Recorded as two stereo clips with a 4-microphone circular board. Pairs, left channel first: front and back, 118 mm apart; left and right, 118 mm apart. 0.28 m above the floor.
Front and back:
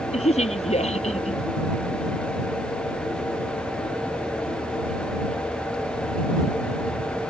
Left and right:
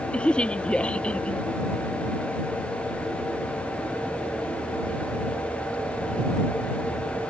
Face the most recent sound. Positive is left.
turn(degrees=10)